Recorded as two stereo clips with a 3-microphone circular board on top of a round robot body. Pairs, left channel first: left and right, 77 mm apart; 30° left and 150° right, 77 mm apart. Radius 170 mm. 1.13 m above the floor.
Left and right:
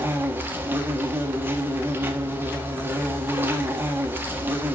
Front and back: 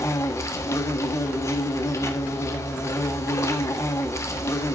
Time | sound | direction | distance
0.0 | an insect | 25° right | 1.6 m